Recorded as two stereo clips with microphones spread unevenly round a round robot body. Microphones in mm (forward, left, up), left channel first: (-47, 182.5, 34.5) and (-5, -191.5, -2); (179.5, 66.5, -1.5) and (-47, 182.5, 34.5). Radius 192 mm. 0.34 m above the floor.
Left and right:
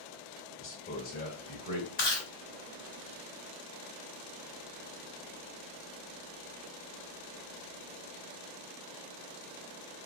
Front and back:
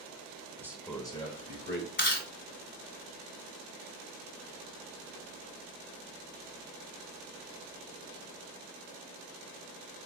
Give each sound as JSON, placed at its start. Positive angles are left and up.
{"t": 0.6, "sound": "a man speaking", "azimuth_deg": 70, "distance_m": 1.0}
{"t": 2.0, "sound": "chewing", "azimuth_deg": 25, "distance_m": 2.0}